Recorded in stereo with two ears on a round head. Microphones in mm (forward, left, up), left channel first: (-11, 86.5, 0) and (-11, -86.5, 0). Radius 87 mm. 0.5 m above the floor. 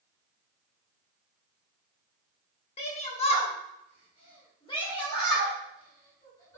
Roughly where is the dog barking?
No dog barking in this recording.